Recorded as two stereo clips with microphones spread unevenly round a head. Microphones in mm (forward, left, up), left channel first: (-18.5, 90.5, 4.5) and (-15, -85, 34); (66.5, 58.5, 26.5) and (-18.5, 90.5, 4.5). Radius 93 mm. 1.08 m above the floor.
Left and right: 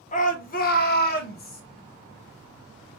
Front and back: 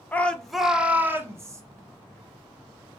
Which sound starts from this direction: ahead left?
A shout, at 0.1 s.